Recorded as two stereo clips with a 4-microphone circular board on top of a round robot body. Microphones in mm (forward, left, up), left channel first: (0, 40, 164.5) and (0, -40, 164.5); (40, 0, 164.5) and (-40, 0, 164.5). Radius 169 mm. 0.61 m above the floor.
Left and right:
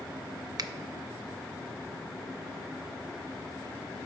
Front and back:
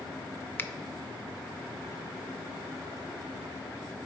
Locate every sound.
0.6 s a finger snap: 60° right, 0.6 m